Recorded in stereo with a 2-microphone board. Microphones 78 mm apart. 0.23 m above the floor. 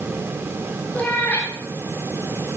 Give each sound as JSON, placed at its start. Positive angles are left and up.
{"t": 0.9, "sound": "a cat meowing", "side_deg": 20, "distance_m": 4.0}